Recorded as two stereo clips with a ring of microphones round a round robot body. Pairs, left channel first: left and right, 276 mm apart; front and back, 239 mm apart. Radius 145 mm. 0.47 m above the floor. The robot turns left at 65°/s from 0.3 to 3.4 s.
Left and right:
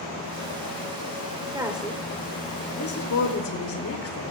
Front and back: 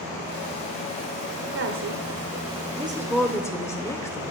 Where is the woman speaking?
165° right, 1.9 m; by 4.3 s 75° left, 1.9 m.